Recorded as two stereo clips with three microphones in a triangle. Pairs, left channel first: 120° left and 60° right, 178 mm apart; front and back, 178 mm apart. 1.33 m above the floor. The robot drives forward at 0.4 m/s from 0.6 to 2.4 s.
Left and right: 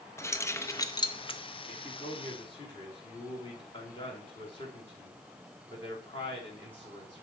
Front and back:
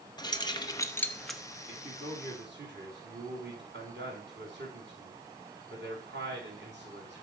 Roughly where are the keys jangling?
Ahead left.